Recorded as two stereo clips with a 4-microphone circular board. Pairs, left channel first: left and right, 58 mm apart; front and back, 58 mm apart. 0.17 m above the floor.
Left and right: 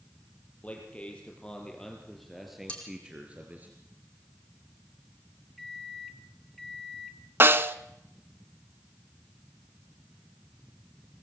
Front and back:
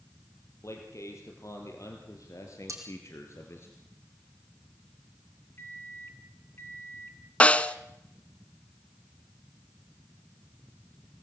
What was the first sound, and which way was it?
A man speaking, 25° left.